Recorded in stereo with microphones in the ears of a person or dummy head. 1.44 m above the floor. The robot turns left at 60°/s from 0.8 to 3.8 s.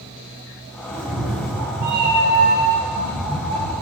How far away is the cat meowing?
About 1.4 m.